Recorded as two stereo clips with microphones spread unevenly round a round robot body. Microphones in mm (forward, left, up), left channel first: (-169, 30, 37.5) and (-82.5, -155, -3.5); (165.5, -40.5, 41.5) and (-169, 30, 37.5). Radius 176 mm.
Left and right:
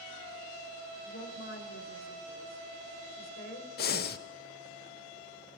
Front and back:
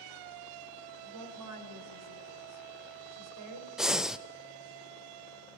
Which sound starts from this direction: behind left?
A woman speaking, at 1.0 s.